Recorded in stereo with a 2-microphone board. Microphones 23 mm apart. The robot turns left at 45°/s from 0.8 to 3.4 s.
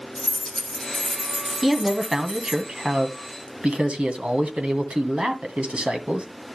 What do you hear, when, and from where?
0.1 s keys jangling: 45° left, 8.5 m; by 2.6 s 35° right, 8.5 m
1.6 s a man speaking: straight ahead, 2 m; by 6.3 s 80° right, 2 m